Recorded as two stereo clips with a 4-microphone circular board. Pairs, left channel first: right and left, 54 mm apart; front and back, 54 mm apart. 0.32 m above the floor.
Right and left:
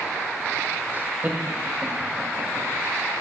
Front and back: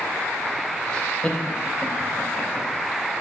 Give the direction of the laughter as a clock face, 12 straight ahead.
10 o'clock.